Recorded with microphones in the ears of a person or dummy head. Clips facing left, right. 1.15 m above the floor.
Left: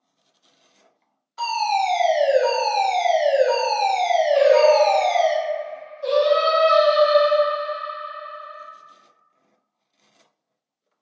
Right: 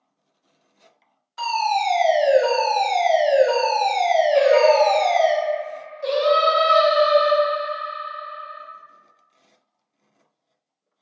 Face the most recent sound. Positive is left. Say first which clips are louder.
# left 1 dB
turn(degrees=-25)  # may be behind; listen again after turning